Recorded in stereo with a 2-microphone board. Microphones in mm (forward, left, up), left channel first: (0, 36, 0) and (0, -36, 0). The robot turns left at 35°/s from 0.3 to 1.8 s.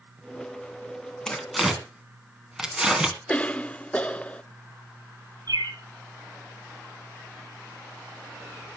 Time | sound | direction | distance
1.3 | tearing paper | 10° left (ahead or behind) | 2 m
3.3 | a cough | 15° left (ahead or behind) | 0.7 m
5.5 | a bird | 60° right (ahead or behind) | 1.6 m